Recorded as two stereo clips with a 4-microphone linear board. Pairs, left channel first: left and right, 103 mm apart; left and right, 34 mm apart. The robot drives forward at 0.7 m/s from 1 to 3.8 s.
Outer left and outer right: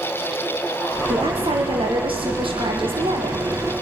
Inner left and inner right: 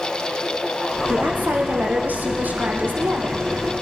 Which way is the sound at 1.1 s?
65° right (ahead or behind).